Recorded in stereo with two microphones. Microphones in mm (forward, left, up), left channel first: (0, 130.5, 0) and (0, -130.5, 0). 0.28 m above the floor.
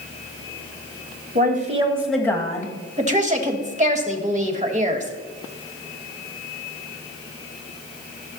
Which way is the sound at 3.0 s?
25° right (ahead or behind).